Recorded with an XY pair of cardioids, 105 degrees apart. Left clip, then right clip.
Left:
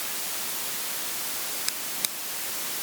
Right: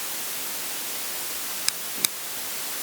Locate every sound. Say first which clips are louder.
1.7 s a drawer: right 7 dB; 30° right